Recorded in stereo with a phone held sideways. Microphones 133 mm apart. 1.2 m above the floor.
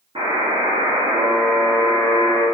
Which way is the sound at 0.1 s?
40° right (ahead or behind).